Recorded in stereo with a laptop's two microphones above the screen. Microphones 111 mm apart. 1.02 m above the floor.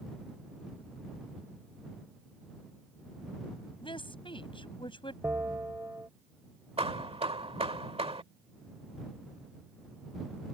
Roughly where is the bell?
Centre.